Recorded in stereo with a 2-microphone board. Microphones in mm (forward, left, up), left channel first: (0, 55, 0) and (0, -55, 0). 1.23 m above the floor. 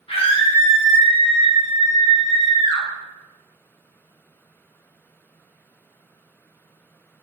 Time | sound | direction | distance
0.1 | a scream | 60° left (ahead or behind) | 0.9 m